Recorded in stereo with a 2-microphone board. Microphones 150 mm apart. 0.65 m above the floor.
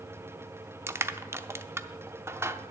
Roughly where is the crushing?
Centre.